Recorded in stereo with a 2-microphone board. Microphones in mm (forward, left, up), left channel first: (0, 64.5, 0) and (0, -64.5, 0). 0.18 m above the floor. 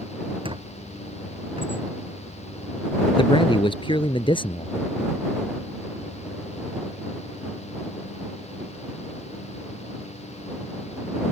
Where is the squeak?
45° right (ahead or behind).